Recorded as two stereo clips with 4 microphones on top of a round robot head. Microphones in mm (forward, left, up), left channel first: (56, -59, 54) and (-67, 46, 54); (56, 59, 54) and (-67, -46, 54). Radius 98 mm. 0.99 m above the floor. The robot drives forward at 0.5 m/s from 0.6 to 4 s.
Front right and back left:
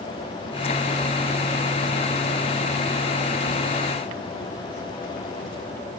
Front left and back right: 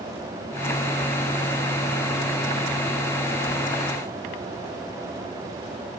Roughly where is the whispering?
I don't hear whispering.